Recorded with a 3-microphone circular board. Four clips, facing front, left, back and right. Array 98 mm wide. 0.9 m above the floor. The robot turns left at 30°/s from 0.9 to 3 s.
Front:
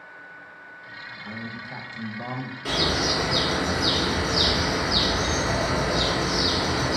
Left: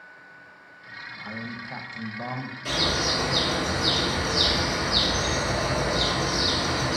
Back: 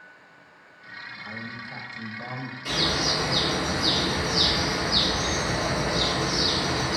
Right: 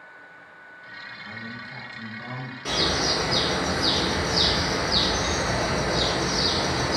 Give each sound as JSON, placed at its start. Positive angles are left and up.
{"t": 1.2, "sound": "a man speaking", "azimuth_deg": 85, "distance_m": 0.7}
{"t": 2.6, "sound": "a bird", "azimuth_deg": -50, "distance_m": 1.2}